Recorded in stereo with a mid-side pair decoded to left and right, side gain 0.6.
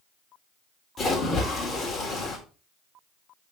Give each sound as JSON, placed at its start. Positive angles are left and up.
{"t": 1.0, "sound": "a splash", "azimuth_deg": 30, "distance_m": 3.5}